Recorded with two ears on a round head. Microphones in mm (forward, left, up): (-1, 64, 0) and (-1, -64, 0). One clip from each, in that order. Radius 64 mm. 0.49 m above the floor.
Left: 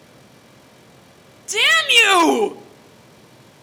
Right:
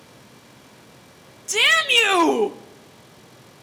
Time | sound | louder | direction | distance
1.5 | a shout | left 2 dB | 5° right (ahead or behind) | 1.1 m